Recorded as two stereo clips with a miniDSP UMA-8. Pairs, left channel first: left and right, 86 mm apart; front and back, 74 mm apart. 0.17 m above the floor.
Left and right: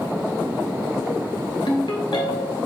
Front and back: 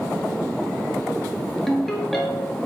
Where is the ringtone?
90° left, 1.6 m.